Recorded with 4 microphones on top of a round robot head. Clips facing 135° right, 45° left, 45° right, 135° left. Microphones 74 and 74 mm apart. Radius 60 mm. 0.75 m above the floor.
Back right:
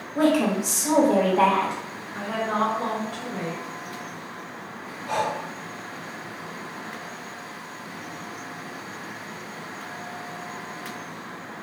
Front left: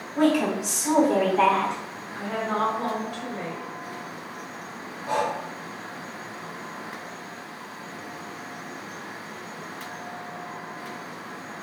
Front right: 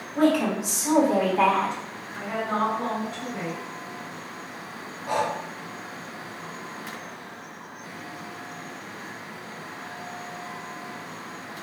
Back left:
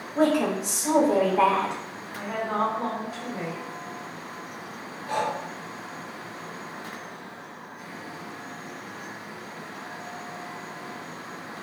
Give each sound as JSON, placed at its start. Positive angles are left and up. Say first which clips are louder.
{"t": 0.1, "sound": "a woman speaking", "louder": "back right 1 dB, front right 1 dB", "azimuth_deg": -170, "distance_m": 1.3}
{"t": 2.1, "sound": "a woman speaking", "louder": "back right 1 dB, front right 1 dB", "azimuth_deg": -145, "distance_m": 1.8}
{"t": 5.1, "sound": "breathing", "louder": "even, front right 2 dB", "azimuth_deg": -25, "distance_m": 0.7}